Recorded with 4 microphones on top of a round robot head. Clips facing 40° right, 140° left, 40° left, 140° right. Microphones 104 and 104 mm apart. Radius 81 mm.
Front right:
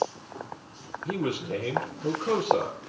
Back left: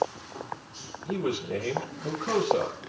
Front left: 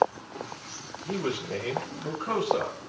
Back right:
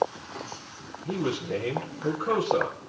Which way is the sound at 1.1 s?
75° right.